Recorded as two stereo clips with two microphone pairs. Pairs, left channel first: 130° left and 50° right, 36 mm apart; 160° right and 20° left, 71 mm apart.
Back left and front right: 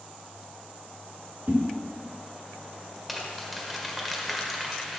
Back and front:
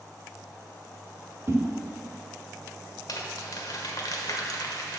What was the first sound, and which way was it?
A whoosh, 25° right.